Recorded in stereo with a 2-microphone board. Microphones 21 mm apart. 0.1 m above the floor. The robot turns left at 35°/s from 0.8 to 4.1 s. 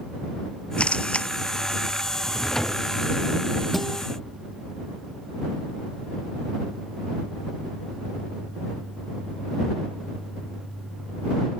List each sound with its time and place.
0.8 s a camera shutter: 70° left (ahead or behind); by 1.3 s 80° left
2.2 s a drawer: 15° left (ahead or behind); by 2.9 s 40° left (ahead or behind)
3.7 s a guitar: 5° left (ahead or behind); by 4.0 s 5° right (ahead or behind)